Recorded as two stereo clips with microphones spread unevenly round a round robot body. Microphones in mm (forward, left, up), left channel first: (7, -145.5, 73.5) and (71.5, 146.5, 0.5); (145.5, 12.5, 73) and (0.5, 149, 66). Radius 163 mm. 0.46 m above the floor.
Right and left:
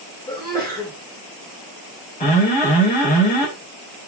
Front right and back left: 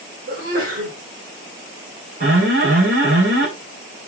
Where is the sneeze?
175° left, 2.5 m.